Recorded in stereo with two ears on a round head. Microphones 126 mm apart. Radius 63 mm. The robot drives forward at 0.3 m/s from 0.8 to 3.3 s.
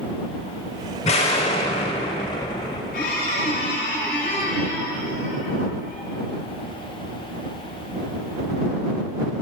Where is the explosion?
45° left (ahead or behind), 1.1 m; by 2.8 s 35° left (ahead or behind), 1.4 m.